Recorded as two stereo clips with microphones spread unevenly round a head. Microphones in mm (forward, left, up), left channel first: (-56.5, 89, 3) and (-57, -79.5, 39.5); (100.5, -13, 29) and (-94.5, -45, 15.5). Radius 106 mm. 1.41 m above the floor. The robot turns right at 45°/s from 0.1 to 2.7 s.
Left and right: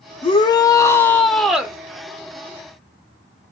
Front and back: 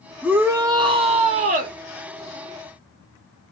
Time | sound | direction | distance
0.2 | a shout | 110° left | 0.5 m